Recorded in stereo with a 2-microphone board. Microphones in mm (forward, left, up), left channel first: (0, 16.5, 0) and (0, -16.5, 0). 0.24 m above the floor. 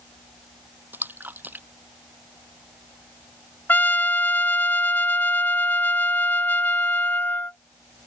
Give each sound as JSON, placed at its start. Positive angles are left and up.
{"t": 0.9, "sound": "a splash", "side_deg": -80}
{"t": 3.7, "sound": "a trumpet", "side_deg": 80}